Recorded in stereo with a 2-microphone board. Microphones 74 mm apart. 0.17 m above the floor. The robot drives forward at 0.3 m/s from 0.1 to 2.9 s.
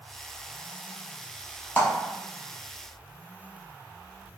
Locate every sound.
1.8 s a clap: 20° left (ahead or behind), 0.9 m